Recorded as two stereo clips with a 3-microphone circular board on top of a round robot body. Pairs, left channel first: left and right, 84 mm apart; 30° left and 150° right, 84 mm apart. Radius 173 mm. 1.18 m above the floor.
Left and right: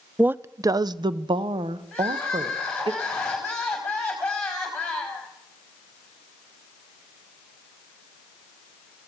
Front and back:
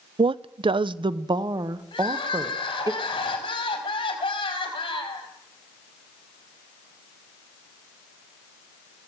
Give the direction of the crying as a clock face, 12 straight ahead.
12 o'clock.